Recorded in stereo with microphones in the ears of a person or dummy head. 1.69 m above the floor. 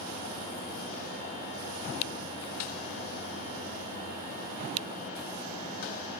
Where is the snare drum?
70° left (ahead or behind), 2.5 m.